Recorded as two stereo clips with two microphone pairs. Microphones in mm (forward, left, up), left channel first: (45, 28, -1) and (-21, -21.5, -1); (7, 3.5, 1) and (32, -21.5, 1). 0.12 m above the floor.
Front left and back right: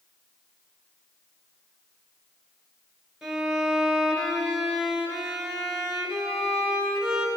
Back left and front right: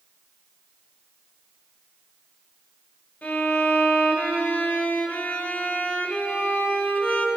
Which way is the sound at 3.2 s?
130° left.